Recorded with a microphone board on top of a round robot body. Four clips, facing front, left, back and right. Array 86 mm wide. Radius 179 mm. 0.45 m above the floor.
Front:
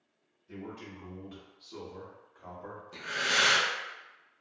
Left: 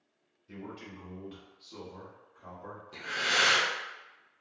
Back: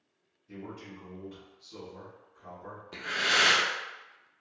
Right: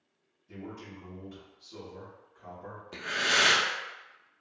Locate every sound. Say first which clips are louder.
0.5 s a man speaking: right 1 dB, even; 90° left, 1.8 m; by 2.8 s 15° right, 1.5 m
2.9 s breathing: right 2 dB, back 2 dB; 130° right, 0.7 m